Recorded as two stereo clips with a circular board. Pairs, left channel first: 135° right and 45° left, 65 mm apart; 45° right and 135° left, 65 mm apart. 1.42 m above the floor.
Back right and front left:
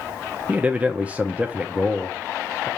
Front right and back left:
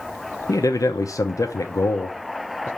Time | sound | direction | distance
0.5 | a man speaking | 20° right | 0.7 m